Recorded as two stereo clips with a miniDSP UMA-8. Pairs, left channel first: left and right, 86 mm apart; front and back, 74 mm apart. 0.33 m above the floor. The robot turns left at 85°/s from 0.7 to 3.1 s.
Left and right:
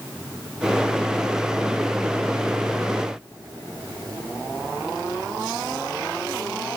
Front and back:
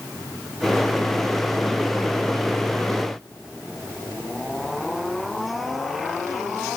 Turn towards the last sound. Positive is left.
No sound to turn to.